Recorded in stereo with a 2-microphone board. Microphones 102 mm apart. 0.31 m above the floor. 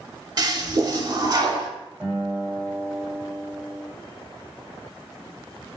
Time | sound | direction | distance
0.4 | a toilet flushing | 40° right (ahead or behind) | 0.7 m
2.0 | a guitar | 15° right (ahead or behind) | 1.9 m